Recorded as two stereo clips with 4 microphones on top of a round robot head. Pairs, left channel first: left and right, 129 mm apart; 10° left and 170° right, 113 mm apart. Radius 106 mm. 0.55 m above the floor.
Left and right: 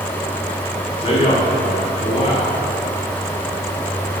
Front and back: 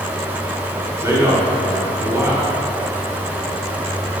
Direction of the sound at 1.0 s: 125° left.